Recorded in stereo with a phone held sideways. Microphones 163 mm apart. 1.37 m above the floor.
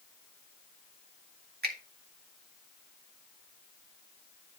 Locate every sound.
1.6 s a finger snap: 75° right (ahead or behind), 1.5 m